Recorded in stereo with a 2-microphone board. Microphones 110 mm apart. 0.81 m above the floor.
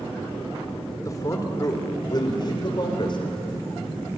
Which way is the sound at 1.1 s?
30° left (ahead or behind).